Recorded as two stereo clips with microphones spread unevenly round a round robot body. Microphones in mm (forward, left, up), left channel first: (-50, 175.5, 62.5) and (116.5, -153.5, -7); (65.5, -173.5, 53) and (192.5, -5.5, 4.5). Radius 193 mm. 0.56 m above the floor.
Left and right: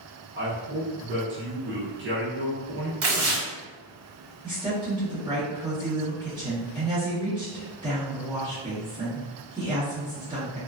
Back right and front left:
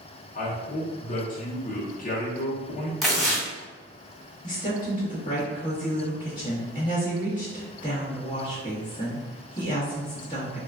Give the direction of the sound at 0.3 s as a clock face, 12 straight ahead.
3 o'clock.